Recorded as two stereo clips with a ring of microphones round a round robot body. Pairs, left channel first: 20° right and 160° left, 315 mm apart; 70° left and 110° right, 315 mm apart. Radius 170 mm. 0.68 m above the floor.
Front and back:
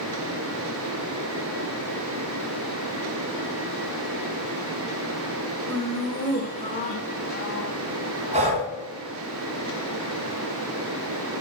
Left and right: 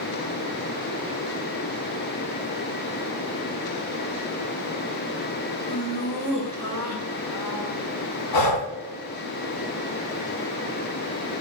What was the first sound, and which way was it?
Laughter, 60° left.